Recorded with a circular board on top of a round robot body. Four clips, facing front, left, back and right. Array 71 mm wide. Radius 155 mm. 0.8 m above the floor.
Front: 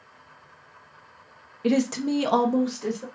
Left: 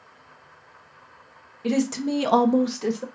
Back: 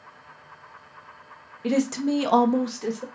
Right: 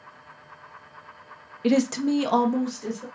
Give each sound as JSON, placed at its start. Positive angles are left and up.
{"t": 1.6, "sound": "a woman speaking", "azimuth_deg": -80, "distance_m": 0.8}